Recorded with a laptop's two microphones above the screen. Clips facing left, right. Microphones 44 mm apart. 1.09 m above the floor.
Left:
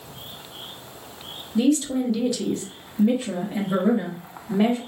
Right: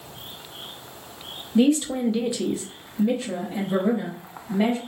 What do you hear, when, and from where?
1.6 s a woman speaking: 30° right (ahead or behind), 0.9 m; by 4.8 s 30° left (ahead or behind), 1.3 m